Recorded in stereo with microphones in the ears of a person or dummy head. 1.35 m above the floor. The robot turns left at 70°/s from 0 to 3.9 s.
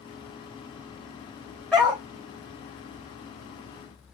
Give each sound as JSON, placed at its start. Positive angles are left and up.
{"t": 1.7, "sound": "a dog barking", "side_deg": 0, "distance_m": 2.0}